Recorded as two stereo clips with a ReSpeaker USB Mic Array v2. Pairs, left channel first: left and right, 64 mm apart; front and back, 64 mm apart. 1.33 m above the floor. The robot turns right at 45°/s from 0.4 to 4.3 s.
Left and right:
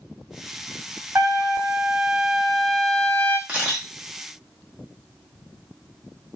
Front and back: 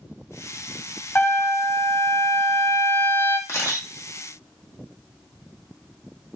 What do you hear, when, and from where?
1.1 s a trumpet: 50° right, 0.5 m; by 3.4 s 50° left, 0.5 m
3.5 s a camera shutter: 25° right, 1.0 m; by 3.9 s 5° right, 1.0 m